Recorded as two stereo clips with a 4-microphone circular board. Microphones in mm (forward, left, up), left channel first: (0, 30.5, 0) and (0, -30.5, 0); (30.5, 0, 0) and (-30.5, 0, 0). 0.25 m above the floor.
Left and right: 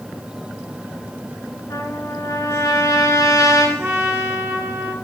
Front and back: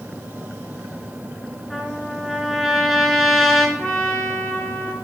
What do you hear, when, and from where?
1.7 s a trumpet: 85° left, 3 m
3.8 s a trumpet: 55° right, 3.5 m